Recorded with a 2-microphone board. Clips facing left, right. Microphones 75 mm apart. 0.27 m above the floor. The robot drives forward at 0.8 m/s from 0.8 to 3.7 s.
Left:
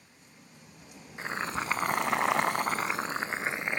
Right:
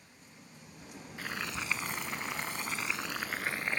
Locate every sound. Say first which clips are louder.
1.2 s boiling: left 6 dB; 25° left (ahead or behind), 1.0 m; by 3.8 s 20° left (ahead or behind), 1.3 m